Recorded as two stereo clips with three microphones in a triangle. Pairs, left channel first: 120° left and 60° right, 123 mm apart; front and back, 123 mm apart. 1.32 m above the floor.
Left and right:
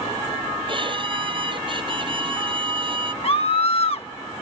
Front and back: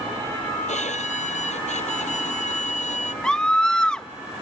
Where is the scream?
85° left.